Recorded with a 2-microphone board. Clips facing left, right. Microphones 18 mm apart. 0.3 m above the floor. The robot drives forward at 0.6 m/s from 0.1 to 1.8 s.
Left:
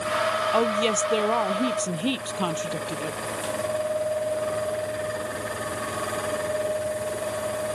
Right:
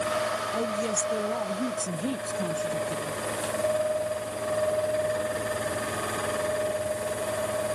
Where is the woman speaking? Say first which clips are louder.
Left 6 dB; 75° left (ahead or behind); by 3.2 s 70° left (ahead or behind).